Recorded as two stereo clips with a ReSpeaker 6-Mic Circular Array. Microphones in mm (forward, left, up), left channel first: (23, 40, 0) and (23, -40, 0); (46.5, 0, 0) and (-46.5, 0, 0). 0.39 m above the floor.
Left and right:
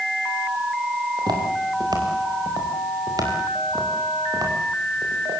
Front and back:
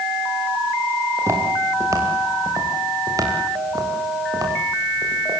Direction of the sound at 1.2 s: 120° right.